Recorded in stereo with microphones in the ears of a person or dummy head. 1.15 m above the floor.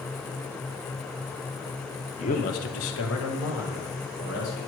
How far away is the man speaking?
About 0.8 m.